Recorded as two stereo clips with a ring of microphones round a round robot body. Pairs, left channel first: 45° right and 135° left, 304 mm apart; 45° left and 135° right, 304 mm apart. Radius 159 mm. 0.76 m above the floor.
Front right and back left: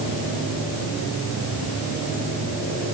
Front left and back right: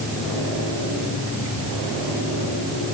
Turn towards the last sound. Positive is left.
No sound to turn to.